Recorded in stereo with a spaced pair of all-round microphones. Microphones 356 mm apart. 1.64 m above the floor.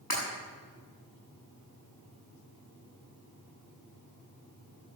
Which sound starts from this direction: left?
Breaking glass, at 0.1 s.